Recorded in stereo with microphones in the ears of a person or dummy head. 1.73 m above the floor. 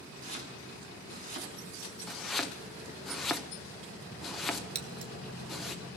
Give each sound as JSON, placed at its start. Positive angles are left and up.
{"t": 0.2, "sound": "chopping", "side_deg": -50, "distance_m": 5.5}
{"t": 2.1, "sound": "chopping", "side_deg": 0, "distance_m": 1.3}
{"t": 4.8, "sound": "scissors", "side_deg": -35, "distance_m": 1.7}